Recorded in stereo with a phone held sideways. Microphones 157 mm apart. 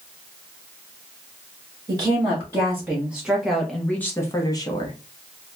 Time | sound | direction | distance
1.9 | a woman speaking | 20° right (ahead or behind) | 1.4 m